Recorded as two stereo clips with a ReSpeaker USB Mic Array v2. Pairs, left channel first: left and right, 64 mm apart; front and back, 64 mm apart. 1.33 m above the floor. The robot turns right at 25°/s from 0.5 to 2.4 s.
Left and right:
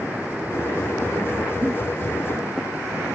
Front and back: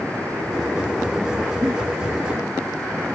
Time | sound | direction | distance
1.6 | a giggle | 125° right | 1.0 m